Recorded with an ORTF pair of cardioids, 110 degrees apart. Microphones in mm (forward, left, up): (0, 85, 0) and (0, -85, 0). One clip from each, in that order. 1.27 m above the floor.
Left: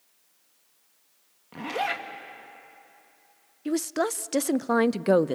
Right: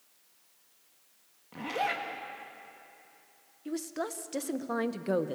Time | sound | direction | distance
1.5 | a zipper | 25° left | 2 m
3.6 | a woman speaking | 45° left | 0.6 m